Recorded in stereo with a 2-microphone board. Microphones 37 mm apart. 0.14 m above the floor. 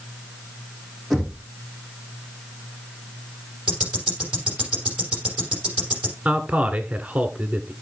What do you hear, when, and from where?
1.1 s knocking: 5° right (ahead or behind), 6.5 m
3.7 s ticking: 20° right (ahead or behind), 6 m
6.2 s a man speaking: 35° right (ahead or behind), 1.4 m